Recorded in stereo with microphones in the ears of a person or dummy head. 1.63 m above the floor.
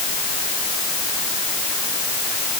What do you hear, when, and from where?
Only background noise.